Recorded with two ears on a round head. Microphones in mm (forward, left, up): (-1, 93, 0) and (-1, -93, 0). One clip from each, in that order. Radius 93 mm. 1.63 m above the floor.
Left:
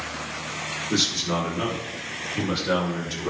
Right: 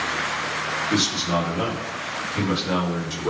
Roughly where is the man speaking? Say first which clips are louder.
Left 1 dB; centre.